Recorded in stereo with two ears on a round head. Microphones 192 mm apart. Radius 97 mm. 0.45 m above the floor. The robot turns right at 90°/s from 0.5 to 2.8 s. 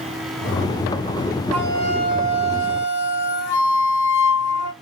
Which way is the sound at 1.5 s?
5° left.